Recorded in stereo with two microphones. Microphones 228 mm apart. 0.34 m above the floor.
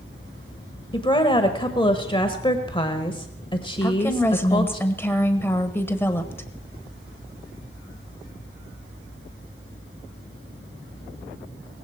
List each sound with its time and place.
0.9 s a woman speaking: 20° left (ahead or behind), 1.1 m
3.8 s a woman speaking: 10° left (ahead or behind), 1.2 m